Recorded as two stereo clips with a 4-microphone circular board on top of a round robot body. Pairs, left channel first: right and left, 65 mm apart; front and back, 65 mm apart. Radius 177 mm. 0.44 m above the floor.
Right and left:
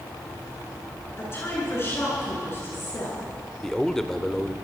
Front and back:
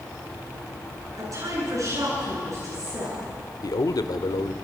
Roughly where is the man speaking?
Ahead.